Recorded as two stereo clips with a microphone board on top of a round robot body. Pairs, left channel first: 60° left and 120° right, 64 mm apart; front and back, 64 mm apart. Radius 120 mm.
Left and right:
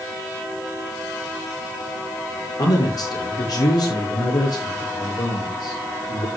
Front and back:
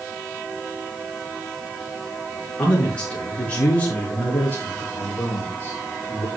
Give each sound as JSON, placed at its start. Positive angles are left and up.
{"t": 2.6, "sound": "a man speaking", "azimuth_deg": 75, "distance_m": 8.0}